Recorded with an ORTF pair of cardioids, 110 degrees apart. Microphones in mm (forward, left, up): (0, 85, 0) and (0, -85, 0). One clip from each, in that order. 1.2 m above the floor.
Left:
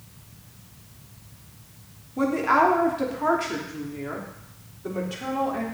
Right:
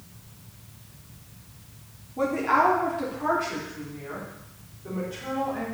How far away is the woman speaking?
About 3 m.